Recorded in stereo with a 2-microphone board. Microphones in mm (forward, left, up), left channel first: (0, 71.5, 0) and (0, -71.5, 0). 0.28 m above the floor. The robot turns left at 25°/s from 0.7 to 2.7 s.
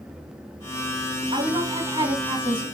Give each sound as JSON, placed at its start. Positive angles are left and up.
{"t": 1.3, "sound": "a woman speaking", "azimuth_deg": -115, "distance_m": 2.5}